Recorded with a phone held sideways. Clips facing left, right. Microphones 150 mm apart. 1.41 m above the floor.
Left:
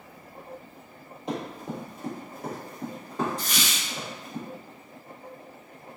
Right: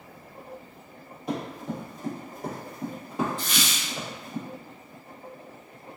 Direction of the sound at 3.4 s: 40° left (ahead or behind).